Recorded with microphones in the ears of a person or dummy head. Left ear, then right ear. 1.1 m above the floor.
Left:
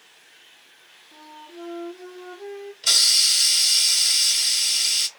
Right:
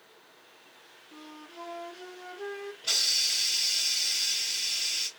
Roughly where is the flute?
Right.